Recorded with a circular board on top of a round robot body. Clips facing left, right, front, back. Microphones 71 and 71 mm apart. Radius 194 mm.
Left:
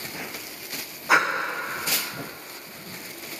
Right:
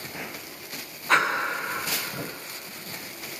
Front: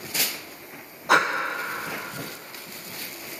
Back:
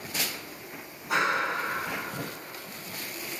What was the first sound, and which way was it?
Breathing, 10° left.